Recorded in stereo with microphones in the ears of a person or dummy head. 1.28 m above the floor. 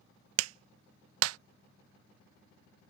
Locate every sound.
0.4 s a clap: 85° right